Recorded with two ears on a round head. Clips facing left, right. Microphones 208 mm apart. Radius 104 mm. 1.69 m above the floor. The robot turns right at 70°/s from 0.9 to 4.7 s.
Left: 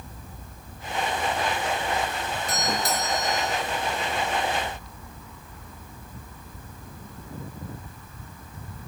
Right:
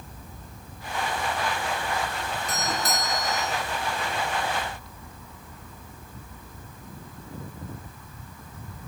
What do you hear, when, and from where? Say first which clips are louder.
2.5 s a doorbell: left 2 dB; 50° left, 5 m; by 3.5 s 120° left, 5 m